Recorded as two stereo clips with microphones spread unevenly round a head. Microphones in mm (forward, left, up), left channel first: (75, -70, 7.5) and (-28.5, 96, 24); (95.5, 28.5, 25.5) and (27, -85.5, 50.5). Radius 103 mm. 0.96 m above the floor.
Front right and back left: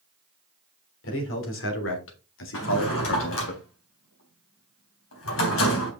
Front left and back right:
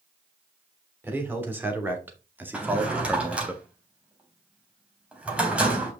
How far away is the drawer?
About 3.5 m.